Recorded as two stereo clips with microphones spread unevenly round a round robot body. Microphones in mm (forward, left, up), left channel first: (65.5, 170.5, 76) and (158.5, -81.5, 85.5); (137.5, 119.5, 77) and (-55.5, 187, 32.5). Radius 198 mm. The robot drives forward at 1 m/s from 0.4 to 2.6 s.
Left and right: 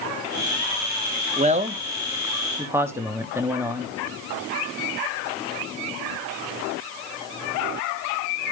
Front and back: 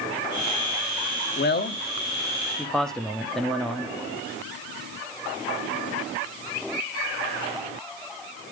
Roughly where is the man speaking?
Ahead.